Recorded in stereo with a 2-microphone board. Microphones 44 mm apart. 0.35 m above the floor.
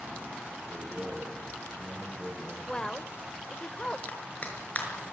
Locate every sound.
0.7 s a man speaking: 35° right (ahead or behind), 6 m
2.7 s a woman speaking: 20° left (ahead or behind), 1.1 m
4.1 s a clap: 35° left (ahead or behind), 5.5 m